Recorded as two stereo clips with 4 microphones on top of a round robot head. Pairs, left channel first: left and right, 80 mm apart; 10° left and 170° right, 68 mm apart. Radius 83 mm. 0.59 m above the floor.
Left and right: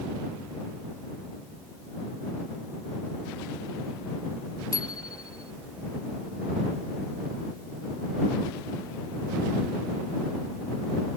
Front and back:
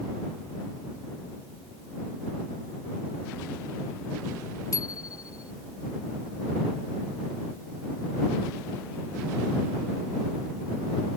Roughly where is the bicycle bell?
Ahead left.